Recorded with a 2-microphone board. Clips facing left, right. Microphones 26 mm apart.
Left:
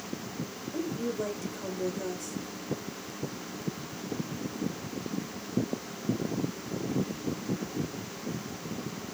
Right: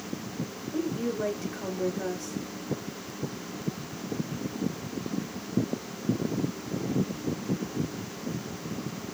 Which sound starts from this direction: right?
A woman speaking, at 0.7 s.